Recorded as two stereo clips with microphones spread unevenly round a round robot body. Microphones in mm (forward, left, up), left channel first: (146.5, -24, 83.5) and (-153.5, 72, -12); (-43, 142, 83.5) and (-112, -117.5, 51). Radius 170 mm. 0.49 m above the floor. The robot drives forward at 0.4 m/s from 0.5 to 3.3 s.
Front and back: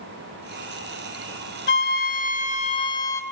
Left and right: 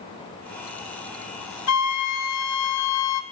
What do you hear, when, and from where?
1.7 s a flute: 45° left, 1.4 m; by 3.2 s 75° left, 1.1 m